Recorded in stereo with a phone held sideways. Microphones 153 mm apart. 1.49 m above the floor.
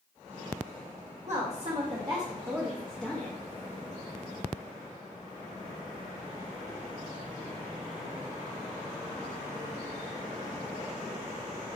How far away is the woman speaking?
About 1.0 m.